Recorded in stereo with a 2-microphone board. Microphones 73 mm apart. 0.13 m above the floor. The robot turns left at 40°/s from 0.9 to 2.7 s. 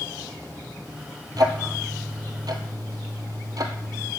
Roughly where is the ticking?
Right.